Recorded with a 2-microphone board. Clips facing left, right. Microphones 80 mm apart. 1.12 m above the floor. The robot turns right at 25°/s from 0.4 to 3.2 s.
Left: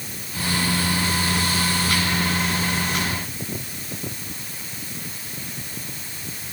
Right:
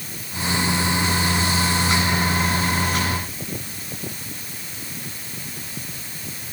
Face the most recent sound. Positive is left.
No sound to turn to.